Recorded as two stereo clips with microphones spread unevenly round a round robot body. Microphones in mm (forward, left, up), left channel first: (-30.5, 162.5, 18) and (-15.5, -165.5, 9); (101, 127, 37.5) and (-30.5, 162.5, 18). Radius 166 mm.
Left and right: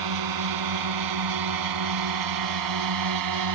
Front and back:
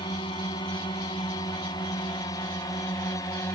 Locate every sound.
0.0 s a drone: 85° right; by 3.5 s 90° right